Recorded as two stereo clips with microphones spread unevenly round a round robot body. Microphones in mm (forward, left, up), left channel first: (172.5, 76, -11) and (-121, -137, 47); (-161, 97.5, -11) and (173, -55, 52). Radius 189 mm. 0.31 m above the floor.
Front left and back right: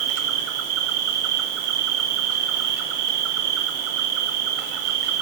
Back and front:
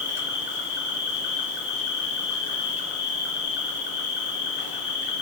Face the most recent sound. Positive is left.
turn(degrees=-145)